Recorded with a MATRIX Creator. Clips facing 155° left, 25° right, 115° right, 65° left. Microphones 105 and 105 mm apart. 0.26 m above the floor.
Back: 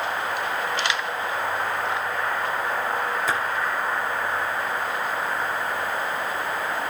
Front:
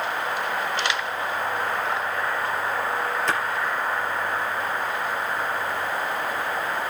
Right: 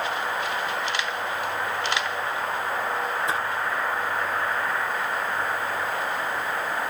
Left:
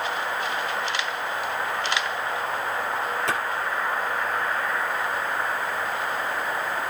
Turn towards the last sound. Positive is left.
turn(degrees=75)